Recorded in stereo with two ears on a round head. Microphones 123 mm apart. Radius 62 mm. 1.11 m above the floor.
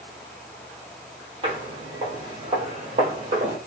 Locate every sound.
1.4 s footsteps: 40° right (ahead or behind), 1.8 m; by 3.6 s 55° right (ahead or behind), 1.8 m